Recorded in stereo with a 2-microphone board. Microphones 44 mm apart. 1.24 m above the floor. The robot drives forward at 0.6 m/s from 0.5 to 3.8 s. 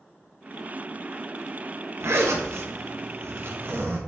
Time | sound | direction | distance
2.0 | a zipper | 80° right | 1.3 m